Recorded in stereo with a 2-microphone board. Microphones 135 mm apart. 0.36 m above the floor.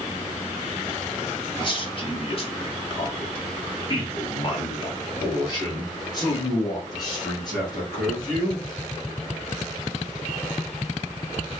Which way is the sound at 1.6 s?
35° left (ahead or behind).